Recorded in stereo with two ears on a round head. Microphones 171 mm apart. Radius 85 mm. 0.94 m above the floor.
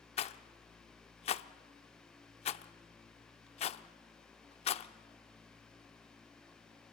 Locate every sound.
0.2 s a rattle: 35° left (ahead or behind), 0.7 m